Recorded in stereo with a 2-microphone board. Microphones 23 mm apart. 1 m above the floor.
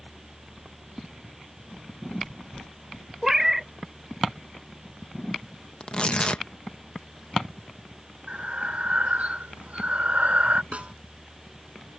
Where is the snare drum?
65° right (ahead or behind).